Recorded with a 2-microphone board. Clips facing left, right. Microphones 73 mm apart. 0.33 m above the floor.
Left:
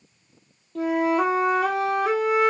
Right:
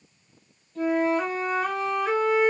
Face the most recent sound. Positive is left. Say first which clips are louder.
# left 2 dB
turn(degrees=60)  # may be behind; listen again after turning